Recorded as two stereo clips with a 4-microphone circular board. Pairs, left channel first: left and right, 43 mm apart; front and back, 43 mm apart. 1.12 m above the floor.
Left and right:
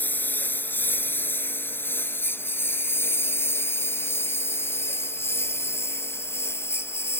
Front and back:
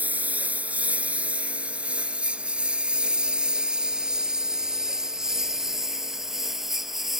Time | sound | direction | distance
0.0 | a lawn mower | 130° left | ?